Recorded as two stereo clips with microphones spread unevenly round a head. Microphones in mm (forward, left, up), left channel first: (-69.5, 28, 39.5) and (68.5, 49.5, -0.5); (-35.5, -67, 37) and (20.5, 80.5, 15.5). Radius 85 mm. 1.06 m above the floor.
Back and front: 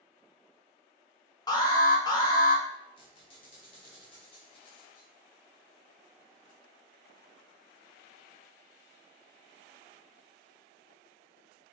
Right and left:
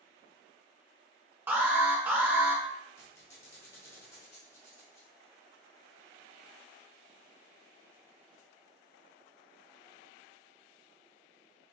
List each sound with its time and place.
1.5 s an alarm: 125° left, 1.0 m
3.0 s a squeak: 170° right, 0.9 m